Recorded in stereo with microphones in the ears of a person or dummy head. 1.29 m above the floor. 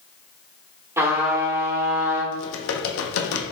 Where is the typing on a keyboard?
80° left, 0.7 m.